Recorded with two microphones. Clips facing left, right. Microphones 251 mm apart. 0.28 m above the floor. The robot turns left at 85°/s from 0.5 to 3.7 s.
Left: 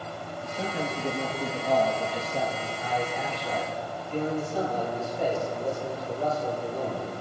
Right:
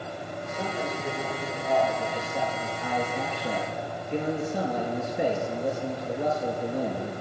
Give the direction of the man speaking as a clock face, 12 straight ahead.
6 o'clock.